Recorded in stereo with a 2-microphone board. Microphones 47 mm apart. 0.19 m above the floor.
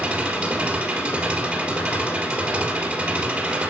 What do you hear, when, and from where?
0.0 s an engine running: 30° right (ahead or behind), 3 m